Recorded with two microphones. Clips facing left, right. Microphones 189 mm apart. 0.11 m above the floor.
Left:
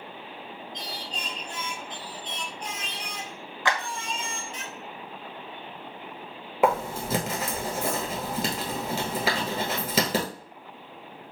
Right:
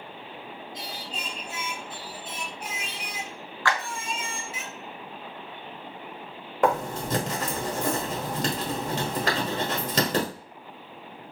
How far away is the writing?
About 1.4 m.